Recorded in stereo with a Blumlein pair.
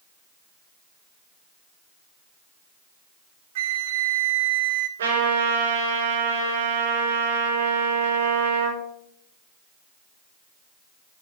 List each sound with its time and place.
3.5 s a flute: 55° right, 0.6 m
5.0 s a trumpet: 65° right, 5.5 m